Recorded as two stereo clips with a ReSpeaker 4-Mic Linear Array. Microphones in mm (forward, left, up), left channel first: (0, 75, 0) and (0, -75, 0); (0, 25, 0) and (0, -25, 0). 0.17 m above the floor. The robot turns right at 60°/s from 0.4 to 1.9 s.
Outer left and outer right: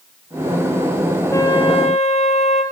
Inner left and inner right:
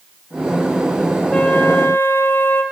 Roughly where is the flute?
Ahead.